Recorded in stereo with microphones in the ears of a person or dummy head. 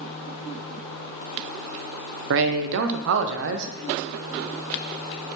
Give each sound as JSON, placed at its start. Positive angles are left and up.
{"t": 2.3, "sound": "a man speaking", "side_deg": -65, "distance_m": 0.5}